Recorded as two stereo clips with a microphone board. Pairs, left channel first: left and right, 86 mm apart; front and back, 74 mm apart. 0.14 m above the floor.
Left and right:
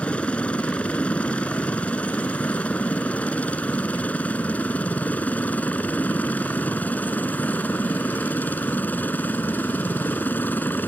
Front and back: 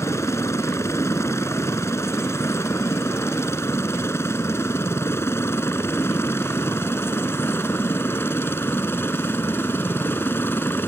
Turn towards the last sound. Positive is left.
turn(degrees=40)